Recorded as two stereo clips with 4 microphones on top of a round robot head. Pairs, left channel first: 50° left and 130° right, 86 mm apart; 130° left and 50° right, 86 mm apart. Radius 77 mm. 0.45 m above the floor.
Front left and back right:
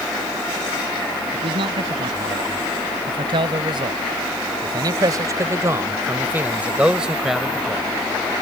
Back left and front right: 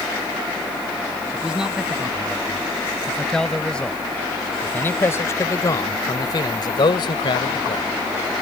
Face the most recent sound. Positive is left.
turn(degrees=135)